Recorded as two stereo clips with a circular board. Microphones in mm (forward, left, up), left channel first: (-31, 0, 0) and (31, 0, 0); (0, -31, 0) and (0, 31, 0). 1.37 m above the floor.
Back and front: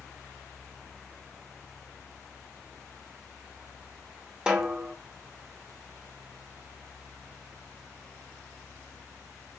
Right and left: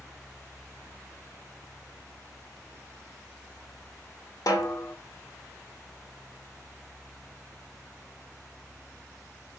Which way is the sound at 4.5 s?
75° right.